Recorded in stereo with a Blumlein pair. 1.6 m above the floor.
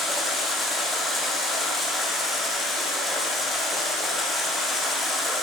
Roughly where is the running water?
Ahead.